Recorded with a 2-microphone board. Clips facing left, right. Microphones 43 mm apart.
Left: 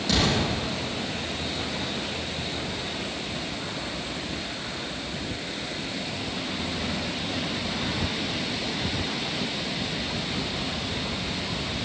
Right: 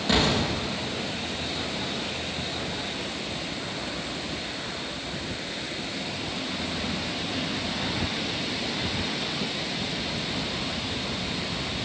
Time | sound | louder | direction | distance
0.1 | an explosion | right 1 dB | 30° right (ahead or behind) | 6 m